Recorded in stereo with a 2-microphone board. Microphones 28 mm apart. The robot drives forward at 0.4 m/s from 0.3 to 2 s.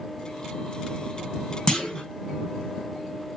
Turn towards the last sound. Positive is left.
turn(degrees=20)  # may be behind; listen again after turning